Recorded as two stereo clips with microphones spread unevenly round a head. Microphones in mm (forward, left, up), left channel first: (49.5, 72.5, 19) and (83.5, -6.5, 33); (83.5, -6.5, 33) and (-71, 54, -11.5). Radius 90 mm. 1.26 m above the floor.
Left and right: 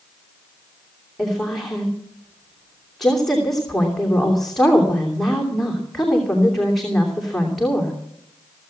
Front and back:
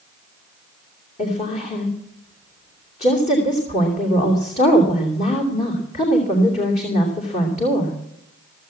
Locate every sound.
1.2 s a woman speaking: 25° left, 3 m